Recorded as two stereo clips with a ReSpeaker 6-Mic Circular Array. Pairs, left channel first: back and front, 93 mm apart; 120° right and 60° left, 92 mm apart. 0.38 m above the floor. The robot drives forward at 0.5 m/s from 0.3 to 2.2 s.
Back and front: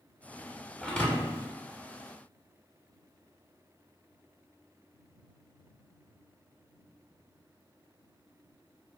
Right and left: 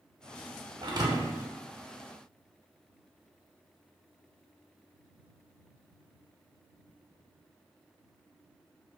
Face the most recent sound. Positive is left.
turn(degrees=140)